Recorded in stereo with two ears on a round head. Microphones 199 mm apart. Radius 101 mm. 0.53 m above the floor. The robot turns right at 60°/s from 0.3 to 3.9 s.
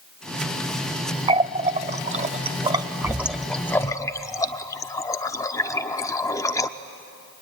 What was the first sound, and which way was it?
A running tap, 25° right (ahead or behind).